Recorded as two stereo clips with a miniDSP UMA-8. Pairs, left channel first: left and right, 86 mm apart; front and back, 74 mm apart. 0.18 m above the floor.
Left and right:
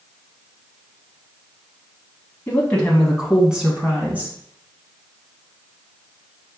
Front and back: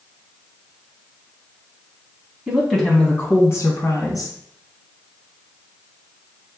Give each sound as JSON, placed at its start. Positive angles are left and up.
{"t": 2.5, "sound": "a woman speaking", "azimuth_deg": 120, "distance_m": 1.1}